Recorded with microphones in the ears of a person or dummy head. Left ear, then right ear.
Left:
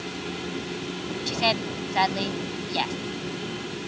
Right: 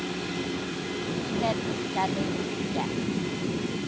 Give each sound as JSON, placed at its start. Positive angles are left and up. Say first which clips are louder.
{"t": 1.3, "sound": "a woman speaking", "louder": "left 6 dB", "side_deg": 80}